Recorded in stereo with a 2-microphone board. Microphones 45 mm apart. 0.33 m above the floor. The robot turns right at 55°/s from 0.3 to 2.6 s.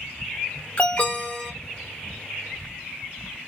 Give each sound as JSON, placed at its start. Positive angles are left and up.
{"t": 0.8, "sound": "an alarm", "azimuth_deg": 120, "distance_m": 1.0}